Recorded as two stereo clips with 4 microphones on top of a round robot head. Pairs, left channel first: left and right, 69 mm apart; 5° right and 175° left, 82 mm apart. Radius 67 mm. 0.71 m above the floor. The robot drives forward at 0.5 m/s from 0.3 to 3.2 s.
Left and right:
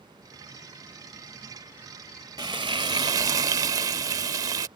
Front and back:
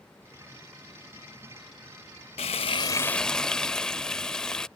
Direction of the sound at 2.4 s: 35° right.